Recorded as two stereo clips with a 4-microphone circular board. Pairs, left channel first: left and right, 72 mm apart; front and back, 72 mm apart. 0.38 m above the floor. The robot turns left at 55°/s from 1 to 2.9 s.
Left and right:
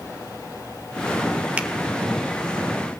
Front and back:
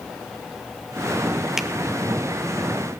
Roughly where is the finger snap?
Right.